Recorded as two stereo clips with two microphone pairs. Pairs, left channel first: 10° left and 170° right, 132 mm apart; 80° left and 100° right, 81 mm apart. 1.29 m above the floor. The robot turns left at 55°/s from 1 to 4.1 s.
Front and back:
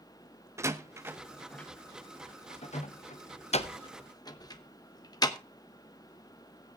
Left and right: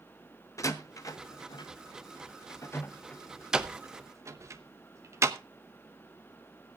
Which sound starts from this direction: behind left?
A door slam, at 0.6 s.